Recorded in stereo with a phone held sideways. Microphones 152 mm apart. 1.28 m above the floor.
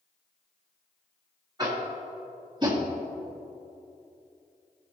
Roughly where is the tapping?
Right.